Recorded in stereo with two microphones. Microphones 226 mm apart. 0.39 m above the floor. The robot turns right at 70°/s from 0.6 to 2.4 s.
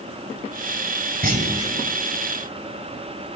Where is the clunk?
50° right, 1.7 m; by 1.7 s 15° right, 1.7 m.